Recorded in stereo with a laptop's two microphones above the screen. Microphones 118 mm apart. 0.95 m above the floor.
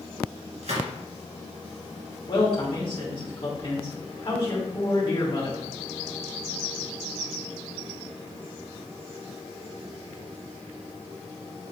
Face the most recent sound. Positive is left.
turn(degrees=45)  # may be behind; listen again after turning